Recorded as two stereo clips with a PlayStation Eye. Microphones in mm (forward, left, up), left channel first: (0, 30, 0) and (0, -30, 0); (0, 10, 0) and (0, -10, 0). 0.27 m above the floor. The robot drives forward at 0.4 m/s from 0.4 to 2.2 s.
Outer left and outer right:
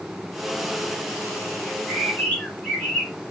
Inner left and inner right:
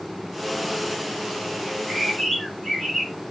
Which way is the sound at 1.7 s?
15° left (ahead or behind).